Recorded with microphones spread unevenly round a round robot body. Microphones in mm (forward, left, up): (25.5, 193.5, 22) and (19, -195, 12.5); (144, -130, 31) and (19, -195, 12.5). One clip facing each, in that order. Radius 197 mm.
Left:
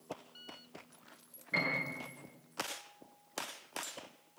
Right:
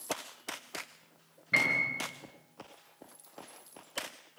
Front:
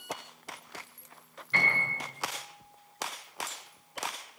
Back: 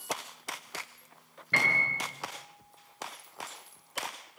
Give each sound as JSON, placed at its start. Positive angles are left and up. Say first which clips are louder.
{"t": 1.5, "sound": "a piano", "louder": "right 1 dB, even", "azimuth_deg": -145, "distance_m": 8.0}